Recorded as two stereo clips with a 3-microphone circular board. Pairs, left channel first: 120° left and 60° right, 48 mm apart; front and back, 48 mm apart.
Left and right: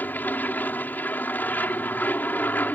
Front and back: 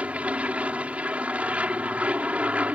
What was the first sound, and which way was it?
An aircraft, 135° left.